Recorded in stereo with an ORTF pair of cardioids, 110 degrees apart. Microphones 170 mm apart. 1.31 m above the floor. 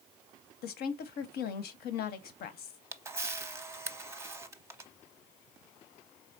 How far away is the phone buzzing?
I don't hear a phone buzzing.